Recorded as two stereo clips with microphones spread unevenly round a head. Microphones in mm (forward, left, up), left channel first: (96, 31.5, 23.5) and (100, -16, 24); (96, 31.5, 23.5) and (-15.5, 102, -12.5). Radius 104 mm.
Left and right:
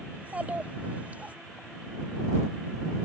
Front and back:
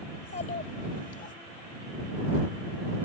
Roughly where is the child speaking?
Ahead right.